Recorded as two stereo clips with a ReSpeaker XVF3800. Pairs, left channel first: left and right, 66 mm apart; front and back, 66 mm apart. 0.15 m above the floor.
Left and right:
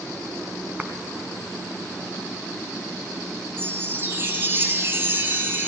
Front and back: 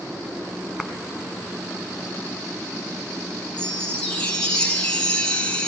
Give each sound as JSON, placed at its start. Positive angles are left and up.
{"t": 0.8, "sound": "a clap", "azimuth_deg": -100, "distance_m": 1.4}
{"t": 3.6, "sound": "a chime", "azimuth_deg": -65, "distance_m": 2.0}